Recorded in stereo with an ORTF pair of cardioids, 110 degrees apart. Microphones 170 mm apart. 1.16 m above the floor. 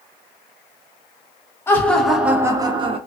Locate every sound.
1.7 s laughter: 15° left, 0.8 m; by 3.0 s 35° right, 0.8 m